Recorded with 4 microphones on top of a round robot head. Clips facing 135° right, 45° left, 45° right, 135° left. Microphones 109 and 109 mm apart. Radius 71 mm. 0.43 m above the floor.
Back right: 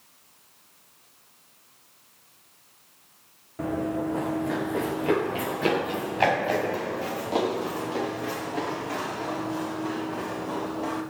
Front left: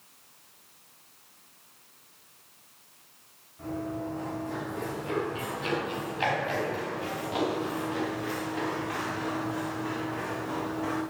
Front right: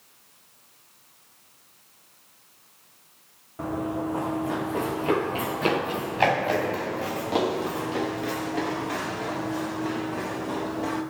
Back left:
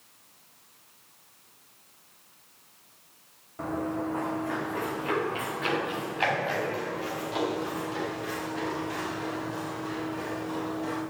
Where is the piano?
I don't hear a piano.